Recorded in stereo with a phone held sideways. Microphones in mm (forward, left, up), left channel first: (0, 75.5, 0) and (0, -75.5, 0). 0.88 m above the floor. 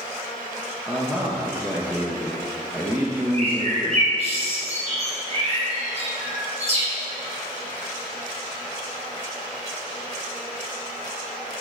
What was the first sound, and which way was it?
A man speaking, 15° right (ahead or behind).